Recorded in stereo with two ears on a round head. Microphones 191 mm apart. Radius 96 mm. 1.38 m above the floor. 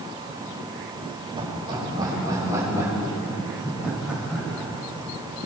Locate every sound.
1.4 s laughter: 25° right (ahead or behind), 7 m; by 4.7 s centre (ahead or behind), 9.5 m